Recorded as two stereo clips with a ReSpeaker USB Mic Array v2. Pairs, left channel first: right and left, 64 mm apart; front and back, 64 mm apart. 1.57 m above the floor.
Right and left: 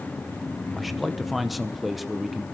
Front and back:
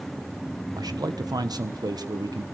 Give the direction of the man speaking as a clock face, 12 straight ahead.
6 o'clock.